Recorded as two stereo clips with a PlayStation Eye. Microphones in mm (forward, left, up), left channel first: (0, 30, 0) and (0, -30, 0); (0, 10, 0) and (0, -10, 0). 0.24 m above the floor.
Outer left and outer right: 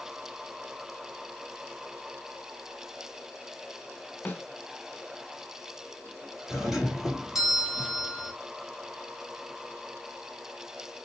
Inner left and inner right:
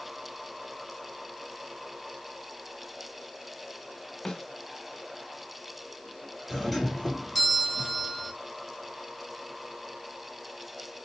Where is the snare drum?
30° left (ahead or behind), 1.3 m.